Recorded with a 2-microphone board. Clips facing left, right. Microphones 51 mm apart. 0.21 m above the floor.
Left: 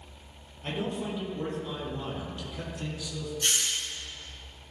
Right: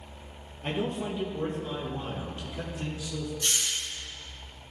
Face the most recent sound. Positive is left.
turn(degrees=55)  # may be behind; listen again after turning